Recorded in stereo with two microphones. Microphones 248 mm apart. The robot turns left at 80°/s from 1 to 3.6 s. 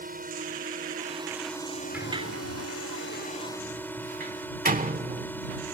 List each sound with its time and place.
0.0 s a drone: 145° right; by 5.7 s 10° left
1.9 s a sliding door: 5° right (ahead or behind); by 5.3 s 35° right (ahead or behind)